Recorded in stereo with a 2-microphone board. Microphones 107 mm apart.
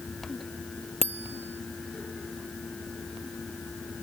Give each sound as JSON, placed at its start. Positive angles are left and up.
{"t": 1.0, "sound": "a bicycle bell", "side_deg": -80}